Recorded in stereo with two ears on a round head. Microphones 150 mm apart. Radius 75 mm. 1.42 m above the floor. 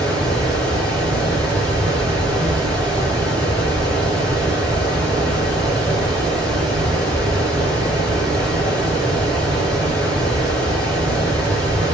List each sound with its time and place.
0.0 s running water: 25° right (ahead or behind), 2.5 m